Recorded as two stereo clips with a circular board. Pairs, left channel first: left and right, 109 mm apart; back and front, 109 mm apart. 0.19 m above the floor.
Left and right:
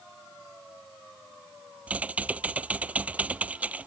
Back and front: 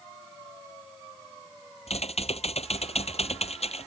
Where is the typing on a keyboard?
165° right.